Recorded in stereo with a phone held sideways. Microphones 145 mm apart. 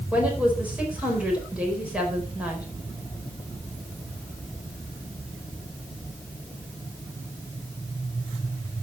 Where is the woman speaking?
10° right (ahead or behind), 4.5 m.